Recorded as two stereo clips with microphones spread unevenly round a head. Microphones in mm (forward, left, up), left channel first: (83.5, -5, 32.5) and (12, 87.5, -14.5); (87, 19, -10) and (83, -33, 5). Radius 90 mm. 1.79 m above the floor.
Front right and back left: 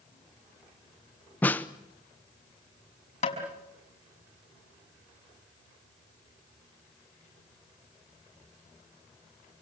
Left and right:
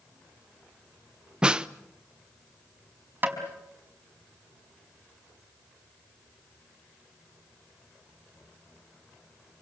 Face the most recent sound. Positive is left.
turn(degrees=-50)